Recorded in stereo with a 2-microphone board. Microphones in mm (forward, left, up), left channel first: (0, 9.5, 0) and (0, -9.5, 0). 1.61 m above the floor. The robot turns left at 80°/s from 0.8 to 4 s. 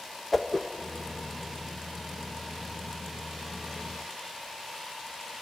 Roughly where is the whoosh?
Centre.